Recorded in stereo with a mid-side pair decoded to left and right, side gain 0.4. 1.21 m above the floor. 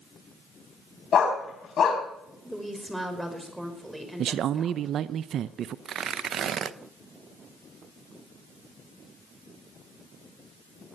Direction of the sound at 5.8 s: 65° right.